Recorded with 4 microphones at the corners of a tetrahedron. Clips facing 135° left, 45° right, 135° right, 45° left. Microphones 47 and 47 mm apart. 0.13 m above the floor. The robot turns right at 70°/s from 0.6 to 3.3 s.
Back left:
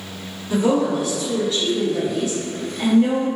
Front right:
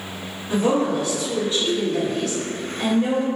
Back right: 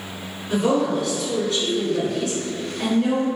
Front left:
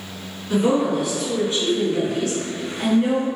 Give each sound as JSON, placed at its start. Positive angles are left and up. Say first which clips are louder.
{"t": 0.5, "sound": "a woman speaking", "louder": "back left 1 dB, front left 1 dB", "azimuth_deg": -55, "distance_m": 1.4}